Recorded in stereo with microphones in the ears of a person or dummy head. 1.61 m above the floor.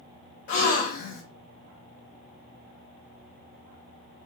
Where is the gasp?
55° left (ahead or behind), 0.7 m.